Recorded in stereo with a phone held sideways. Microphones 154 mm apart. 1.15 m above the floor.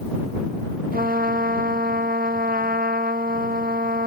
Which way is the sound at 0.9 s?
70° right (ahead or behind).